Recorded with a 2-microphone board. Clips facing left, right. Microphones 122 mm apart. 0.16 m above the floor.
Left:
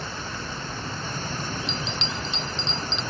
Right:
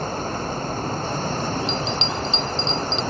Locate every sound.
0.0 s running water: 45° right (ahead or behind)
1.7 s a bell: 30° right (ahead or behind)